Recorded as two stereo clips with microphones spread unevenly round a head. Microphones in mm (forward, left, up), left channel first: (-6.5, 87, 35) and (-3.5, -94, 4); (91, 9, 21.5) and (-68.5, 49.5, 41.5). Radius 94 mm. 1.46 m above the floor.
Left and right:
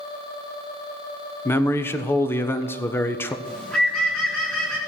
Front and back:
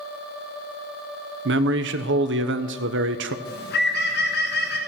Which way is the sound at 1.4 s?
170° left.